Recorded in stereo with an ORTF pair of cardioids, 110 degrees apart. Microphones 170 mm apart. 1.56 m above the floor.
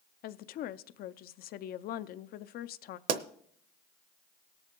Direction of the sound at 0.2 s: 60° left.